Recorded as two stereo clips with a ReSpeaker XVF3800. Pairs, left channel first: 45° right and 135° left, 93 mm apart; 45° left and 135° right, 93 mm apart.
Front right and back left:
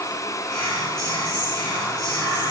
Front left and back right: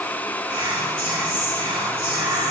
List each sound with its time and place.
0.5 s whispering: 130° right, 3.5 m